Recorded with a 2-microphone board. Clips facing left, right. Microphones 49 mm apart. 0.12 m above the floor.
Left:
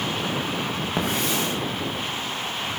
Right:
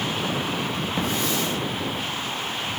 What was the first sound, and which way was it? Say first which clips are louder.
A hiss: left 1 dB; 70° left (ahead or behind).